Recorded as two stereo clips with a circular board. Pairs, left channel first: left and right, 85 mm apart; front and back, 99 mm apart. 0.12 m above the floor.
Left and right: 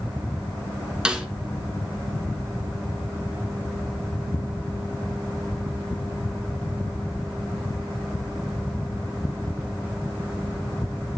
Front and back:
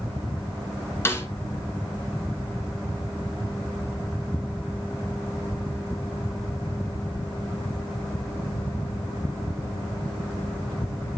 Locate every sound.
1.1 s a snare drum: 25° right, 1.9 m